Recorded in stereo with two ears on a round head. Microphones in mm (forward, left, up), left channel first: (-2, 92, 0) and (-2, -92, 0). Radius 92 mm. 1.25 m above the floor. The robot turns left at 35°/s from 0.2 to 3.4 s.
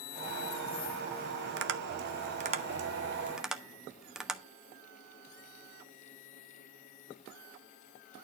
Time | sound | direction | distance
1.6 | tapping | 60° right (ahead or behind) | 1.0 m